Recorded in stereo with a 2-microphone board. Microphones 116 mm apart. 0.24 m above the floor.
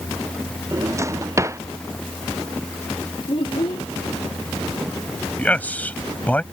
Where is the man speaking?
15° left (ahead or behind).